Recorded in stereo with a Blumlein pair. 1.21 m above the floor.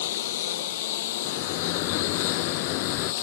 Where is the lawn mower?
55° left; by 3.2 s 50° left.